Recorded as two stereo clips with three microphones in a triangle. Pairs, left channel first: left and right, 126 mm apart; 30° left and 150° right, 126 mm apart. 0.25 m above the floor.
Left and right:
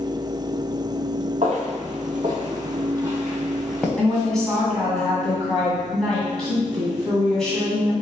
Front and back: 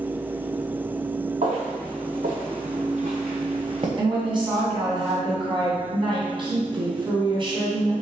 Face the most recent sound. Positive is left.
turn(degrees=175)